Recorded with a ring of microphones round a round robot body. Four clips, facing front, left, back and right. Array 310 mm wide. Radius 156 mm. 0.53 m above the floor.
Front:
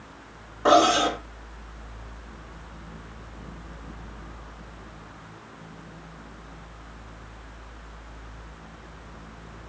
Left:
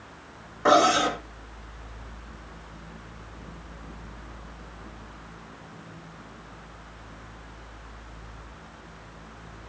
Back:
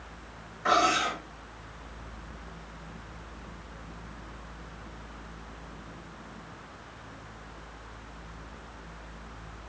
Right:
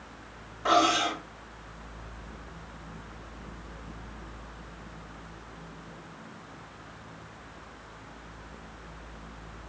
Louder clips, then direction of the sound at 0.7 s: Left 5 dB, front 7 dB; 40° left.